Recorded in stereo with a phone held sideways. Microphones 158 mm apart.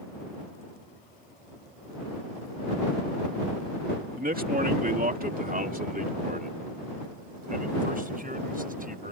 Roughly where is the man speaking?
Right.